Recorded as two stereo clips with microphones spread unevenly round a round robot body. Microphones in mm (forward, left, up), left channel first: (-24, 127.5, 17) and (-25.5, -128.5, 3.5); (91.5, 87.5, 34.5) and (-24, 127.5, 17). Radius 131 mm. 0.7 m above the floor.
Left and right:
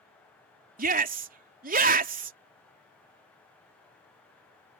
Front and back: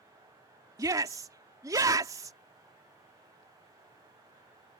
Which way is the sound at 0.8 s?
140° right.